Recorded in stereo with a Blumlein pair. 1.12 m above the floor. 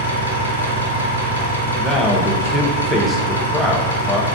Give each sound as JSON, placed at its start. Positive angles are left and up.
{"t": 0.0, "sound": "an engine running", "azimuth_deg": -65, "distance_m": 0.8}
{"t": 1.8, "sound": "a man speaking", "azimuth_deg": 0, "distance_m": 0.7}